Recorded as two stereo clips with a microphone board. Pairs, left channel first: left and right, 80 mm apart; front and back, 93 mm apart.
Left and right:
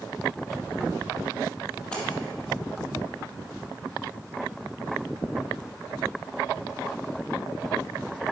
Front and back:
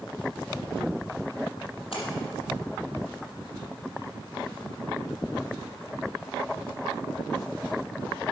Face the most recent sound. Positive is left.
turn(degrees=10)